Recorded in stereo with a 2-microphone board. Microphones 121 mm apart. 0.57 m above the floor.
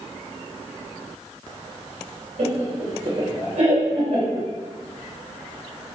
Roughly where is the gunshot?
No gunshot in this recording.